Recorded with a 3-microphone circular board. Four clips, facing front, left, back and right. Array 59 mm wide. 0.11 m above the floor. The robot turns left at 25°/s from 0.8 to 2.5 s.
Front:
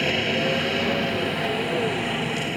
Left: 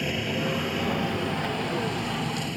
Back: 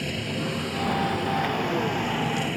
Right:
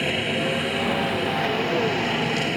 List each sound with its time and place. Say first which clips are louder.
0.0 s a helicopter: right 4 dB, front 7 dB; 30° right; by 2.6 s 75° right